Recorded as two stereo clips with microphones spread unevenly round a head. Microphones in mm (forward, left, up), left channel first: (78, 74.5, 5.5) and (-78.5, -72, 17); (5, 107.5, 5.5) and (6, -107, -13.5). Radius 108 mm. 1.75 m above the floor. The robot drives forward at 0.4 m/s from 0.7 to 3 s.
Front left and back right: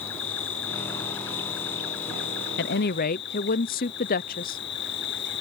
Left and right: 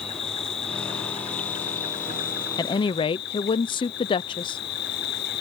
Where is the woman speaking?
30° left; by 4.6 s 50° left.